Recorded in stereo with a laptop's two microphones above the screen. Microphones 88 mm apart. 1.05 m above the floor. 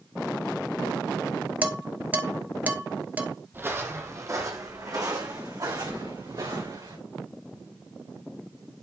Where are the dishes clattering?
20° right (ahead or behind), 0.6 m.